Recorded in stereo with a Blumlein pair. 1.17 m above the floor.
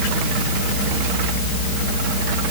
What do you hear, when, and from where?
Only background noise.